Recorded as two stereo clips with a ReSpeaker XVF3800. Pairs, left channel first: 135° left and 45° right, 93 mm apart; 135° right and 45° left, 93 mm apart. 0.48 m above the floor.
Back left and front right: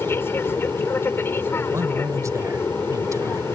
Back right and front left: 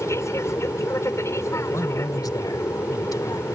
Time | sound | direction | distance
0.0 | an aircraft | 175° right | ?
1.7 | a man speaking | 95° right | ?